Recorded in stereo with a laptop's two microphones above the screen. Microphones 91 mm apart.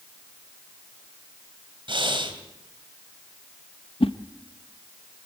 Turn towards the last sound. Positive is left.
turn(degrees=80)